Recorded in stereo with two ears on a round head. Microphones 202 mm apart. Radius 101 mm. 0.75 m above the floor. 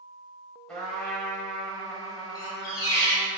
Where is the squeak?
15° left (ahead or behind), 1.0 m.